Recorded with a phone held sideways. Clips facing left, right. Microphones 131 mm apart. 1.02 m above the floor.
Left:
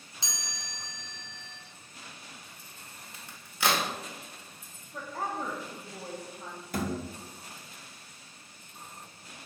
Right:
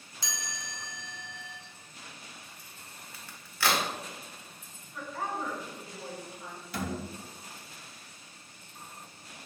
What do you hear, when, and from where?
0.2 s a chime: 20° left (ahead or behind), 0.7 m
3.1 s a crack: 20° left (ahead or behind), 0.7 m
4.9 s a woman speaking: 40° left (ahead or behind), 0.8 m
6.7 s a thud: 45° left (ahead or behind), 0.7 m